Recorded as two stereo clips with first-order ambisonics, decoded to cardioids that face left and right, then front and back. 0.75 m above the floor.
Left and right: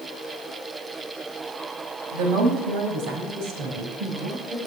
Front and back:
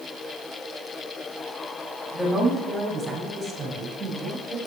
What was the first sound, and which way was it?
A woman speaking, 90° right.